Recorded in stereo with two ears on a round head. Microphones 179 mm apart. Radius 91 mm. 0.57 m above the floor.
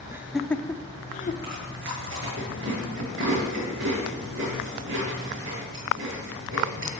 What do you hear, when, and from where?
0.1 s laughter: 15° right (ahead or behind), 1.2 m; by 1.3 s 45° left (ahead or behind), 1.3 m
1.4 s chewing: 65° right (ahead or behind), 8.5 m